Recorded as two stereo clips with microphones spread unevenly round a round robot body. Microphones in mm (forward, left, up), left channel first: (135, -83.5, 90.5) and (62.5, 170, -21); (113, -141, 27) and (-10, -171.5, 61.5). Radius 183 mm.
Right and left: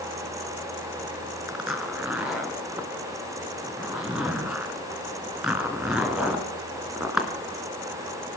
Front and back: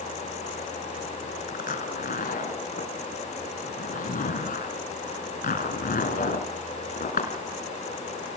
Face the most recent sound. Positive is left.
turn(degrees=15)